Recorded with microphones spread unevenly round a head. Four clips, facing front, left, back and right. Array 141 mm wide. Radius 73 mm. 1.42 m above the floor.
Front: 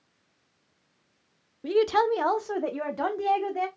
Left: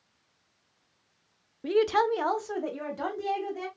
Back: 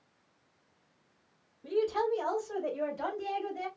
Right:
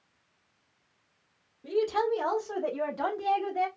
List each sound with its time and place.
1.6 s a woman speaking: 35° left, 0.6 m; by 3.7 s 15° right, 1.7 m